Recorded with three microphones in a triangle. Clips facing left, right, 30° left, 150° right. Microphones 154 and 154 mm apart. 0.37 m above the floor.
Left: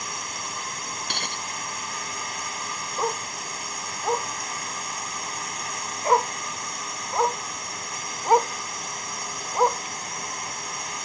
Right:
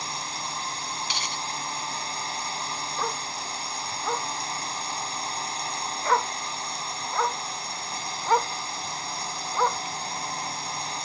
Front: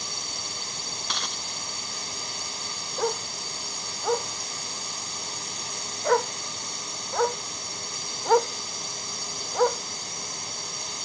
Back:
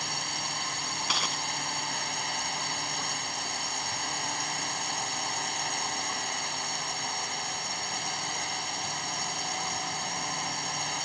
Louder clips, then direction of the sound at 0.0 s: Right 1 dB, back 3 dB; 145° right.